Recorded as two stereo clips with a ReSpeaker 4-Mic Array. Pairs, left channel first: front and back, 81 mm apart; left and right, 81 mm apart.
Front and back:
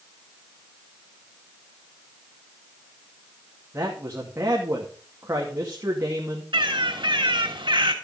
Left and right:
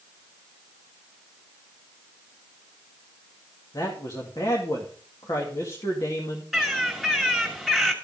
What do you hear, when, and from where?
3.7 s a man speaking: 125° left, 2 m
6.5 s a bird: straight behind, 2.5 m